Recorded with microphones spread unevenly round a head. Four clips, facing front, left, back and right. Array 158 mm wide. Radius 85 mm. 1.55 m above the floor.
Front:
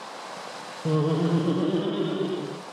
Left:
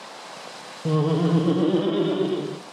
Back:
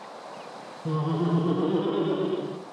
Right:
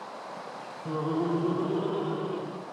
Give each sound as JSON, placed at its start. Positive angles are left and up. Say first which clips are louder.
{"t": 0.8, "sound": "laughter", "louder": "left 7 dB, front 3 dB", "azimuth_deg": 65, "distance_m": 1.4}